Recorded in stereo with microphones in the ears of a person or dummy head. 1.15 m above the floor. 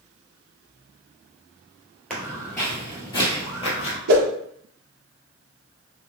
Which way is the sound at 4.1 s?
60° right (ahead or behind).